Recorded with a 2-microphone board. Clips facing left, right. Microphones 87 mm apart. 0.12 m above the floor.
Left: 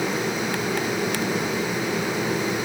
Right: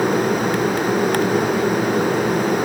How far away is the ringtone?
I don't hear a ringtone.